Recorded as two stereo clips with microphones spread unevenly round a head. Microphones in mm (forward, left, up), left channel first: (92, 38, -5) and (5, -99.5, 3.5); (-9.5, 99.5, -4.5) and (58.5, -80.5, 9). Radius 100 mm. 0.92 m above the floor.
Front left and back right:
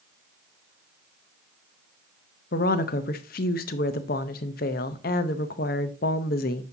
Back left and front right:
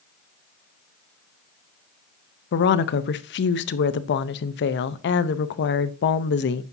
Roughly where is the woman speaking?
Left.